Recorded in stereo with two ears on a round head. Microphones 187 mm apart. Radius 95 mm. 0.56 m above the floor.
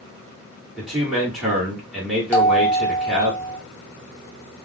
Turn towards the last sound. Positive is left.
turn(degrees=10)  # may be behind; listen again after turning